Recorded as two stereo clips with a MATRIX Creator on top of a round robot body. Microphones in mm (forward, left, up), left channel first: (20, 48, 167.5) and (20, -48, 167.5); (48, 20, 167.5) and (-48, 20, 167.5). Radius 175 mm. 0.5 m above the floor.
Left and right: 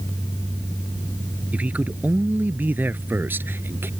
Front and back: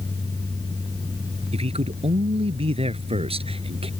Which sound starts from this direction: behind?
A man speaking, at 1.5 s.